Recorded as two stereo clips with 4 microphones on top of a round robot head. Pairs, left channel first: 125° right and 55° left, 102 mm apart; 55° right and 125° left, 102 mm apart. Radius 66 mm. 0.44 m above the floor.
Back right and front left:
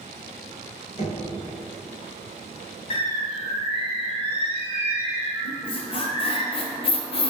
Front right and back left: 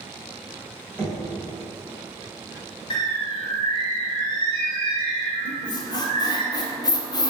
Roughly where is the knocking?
Behind right.